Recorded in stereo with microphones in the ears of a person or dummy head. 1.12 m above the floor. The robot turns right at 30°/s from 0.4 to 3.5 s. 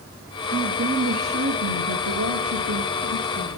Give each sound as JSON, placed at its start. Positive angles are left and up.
{"t": 0.5, "sound": "a woman speaking", "azimuth_deg": -145, "distance_m": 1.6}